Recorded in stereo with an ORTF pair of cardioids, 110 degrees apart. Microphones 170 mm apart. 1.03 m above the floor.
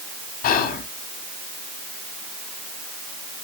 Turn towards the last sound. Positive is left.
turn(degrees=60)